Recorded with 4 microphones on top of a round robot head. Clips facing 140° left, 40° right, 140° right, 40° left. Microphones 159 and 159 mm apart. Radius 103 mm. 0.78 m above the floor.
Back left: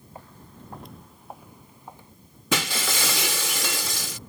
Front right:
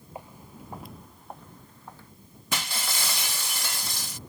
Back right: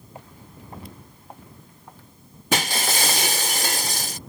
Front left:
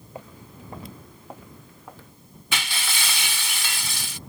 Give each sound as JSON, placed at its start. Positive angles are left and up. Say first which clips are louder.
{"t": 0.1, "sound": "footsteps", "louder": "front right 3 dB, front left 4 dB", "azimuth_deg": 35}
{"t": 2.5, "sound": "breaking glass", "louder": "back left 7 dB, back right 8 dB", "azimuth_deg": 165}